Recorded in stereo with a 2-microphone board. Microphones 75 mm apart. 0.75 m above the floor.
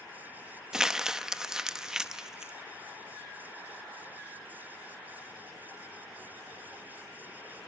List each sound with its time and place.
0.7 s crumpling: 10° right (ahead or behind), 0.9 m